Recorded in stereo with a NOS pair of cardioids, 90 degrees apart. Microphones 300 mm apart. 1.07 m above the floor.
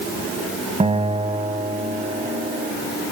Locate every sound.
0.8 s a guitar: 20° right, 2.5 m